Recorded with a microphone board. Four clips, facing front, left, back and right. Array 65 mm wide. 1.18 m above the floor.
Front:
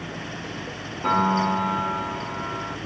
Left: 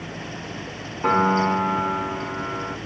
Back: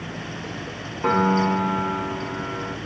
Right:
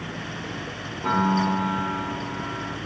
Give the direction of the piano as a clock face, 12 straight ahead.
7 o'clock.